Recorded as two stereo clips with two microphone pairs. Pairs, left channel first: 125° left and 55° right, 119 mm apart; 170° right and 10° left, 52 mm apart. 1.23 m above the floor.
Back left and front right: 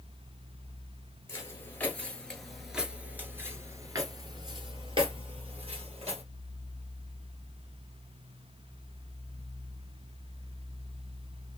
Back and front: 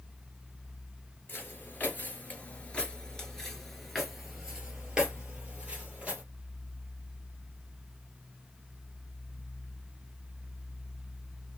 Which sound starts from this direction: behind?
Footsteps, at 1.3 s.